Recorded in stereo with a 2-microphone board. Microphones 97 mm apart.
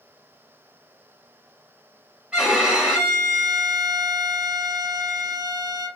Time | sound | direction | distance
2.3 | a violin | 10° right (ahead or behind) | 1.1 m